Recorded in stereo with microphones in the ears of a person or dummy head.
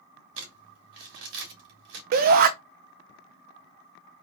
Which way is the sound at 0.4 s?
65° right (ahead or behind).